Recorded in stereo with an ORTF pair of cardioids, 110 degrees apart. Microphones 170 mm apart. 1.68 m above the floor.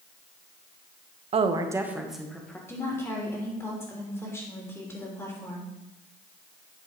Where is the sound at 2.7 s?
15° left, 3.5 m.